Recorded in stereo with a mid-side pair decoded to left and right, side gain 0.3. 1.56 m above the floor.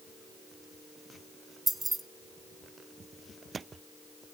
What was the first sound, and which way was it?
Keys jangling, 35° right.